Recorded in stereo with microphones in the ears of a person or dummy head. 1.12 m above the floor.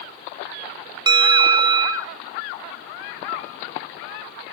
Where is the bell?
25° right (ahead or behind), 0.6 m.